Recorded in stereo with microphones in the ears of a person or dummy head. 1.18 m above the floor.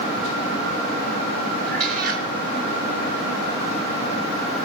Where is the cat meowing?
55° right (ahead or behind), 2.5 m.